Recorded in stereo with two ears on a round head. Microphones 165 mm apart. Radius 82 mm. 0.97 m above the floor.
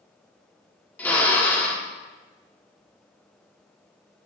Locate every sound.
1.0 s a drill: 10° left (ahead or behind), 1.4 m